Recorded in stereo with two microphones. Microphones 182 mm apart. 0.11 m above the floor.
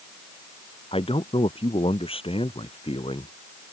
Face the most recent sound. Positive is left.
turn(degrees=30)  # may be behind; listen again after turning